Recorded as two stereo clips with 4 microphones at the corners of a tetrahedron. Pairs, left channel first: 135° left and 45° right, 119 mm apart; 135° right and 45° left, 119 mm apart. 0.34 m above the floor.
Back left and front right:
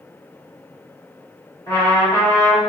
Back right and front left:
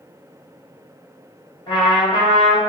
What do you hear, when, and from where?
1.7 s a trumpet: 170° right, 1.7 m